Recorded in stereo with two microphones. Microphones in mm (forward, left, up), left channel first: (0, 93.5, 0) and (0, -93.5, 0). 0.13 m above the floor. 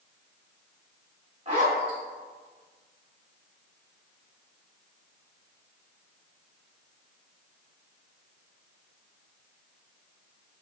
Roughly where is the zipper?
Right.